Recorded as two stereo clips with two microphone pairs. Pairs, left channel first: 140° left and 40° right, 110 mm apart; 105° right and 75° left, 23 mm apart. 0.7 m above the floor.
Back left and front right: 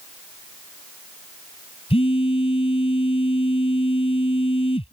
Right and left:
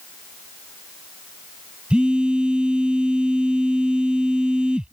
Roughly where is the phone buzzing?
Behind left.